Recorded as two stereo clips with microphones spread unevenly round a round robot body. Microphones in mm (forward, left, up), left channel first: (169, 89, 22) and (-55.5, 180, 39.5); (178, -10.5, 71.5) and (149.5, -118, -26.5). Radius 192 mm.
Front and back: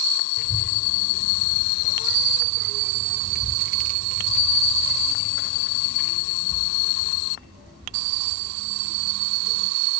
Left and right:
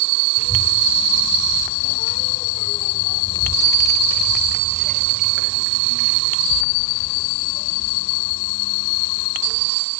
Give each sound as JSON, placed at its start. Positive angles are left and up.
{"t": 0.4, "sound": "a child speaking", "azimuth_deg": 25, "distance_m": 3.0}